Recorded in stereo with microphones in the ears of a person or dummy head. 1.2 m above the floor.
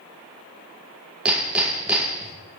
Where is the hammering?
10° right (ahead or behind), 0.7 m.